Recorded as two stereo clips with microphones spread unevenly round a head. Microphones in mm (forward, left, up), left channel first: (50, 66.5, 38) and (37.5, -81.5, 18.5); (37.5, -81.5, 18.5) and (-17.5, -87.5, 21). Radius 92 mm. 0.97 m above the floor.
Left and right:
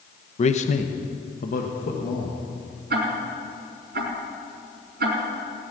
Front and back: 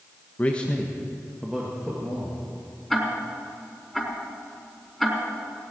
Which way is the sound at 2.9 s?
85° right.